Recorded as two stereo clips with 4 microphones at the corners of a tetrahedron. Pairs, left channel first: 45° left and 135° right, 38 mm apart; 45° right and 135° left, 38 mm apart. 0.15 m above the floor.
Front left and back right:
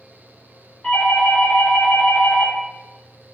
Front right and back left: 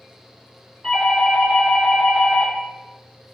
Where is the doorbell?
40° left, 1.8 m.